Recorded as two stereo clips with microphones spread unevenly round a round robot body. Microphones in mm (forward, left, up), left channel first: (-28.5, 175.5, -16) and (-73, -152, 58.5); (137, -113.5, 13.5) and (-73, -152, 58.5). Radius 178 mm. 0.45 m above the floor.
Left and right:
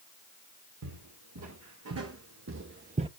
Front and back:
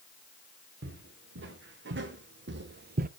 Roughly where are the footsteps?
Behind right.